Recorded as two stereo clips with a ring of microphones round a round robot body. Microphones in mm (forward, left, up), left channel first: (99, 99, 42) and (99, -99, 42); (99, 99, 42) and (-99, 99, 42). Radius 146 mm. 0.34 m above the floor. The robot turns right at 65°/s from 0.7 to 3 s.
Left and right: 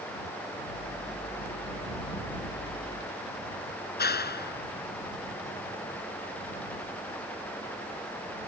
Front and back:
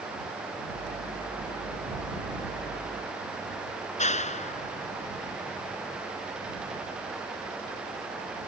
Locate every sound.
4.0 s a clap: 55° left